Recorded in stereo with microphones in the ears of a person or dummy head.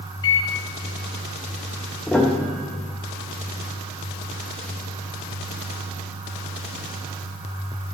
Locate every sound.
0.2 s a microwave: 25° left (ahead or behind), 1.1 m
2.1 s a piano: centre (ahead or behind), 0.6 m